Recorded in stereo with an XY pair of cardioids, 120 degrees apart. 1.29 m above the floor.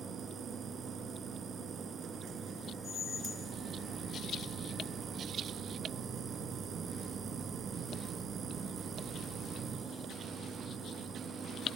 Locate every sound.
0.0 s a machine running: 55° right, 1.7 m
2.8 s a squeak: 50° left, 0.8 m